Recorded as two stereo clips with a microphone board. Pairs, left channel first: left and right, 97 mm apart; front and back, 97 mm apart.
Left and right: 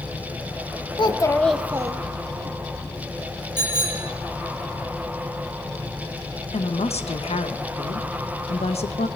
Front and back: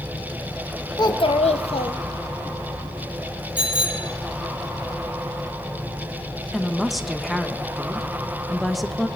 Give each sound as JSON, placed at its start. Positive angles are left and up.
{"t": 1.0, "sound": "a child speaking", "azimuth_deg": 50, "distance_m": 1.0}
{"t": 3.6, "sound": "a bicycle bell", "azimuth_deg": -40, "distance_m": 2.0}
{"t": 6.5, "sound": "a woman speaking", "azimuth_deg": 90, "distance_m": 0.9}